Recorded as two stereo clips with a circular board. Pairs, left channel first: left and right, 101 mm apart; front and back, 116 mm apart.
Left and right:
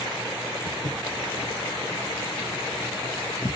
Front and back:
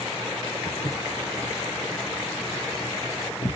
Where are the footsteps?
65° left, 3.5 m; by 3.6 s 30° left, 3 m.